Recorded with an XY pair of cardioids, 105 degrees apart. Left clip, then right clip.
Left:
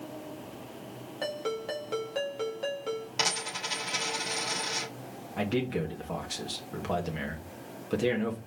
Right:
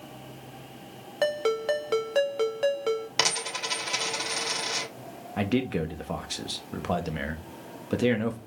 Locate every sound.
1.2 s a ringtone: 55° right, 2 m
3.2 s a dropped coin: 45° right, 3 m
5.4 s a man speaking: 30° right, 2 m